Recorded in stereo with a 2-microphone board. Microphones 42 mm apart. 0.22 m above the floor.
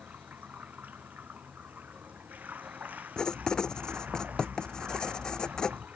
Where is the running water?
45° right (ahead or behind).